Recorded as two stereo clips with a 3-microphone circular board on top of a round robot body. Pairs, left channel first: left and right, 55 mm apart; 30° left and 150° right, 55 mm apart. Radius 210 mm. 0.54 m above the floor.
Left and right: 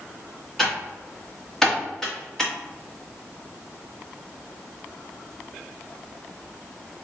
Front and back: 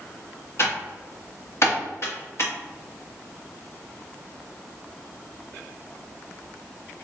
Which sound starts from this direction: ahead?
Typing on a keyboard, at 0.6 s.